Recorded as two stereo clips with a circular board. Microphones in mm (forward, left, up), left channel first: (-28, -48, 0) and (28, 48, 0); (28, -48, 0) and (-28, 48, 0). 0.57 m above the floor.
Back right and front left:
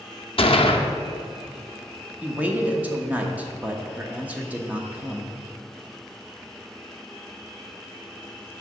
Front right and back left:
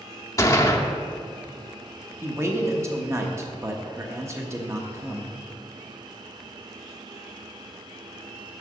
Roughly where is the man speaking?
Behind left.